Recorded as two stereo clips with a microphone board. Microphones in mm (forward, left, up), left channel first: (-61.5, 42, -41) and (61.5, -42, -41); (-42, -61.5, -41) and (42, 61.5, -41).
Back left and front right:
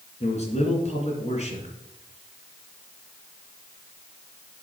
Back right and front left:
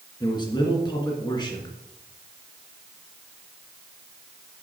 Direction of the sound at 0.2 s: Straight behind.